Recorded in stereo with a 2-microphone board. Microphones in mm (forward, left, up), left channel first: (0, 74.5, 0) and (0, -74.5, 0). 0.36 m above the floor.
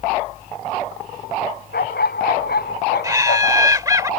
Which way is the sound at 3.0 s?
20° right (ahead or behind).